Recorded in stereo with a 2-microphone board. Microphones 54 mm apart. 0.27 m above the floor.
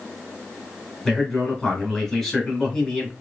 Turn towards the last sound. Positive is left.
turn(degrees=10)  # may be behind; listen again after turning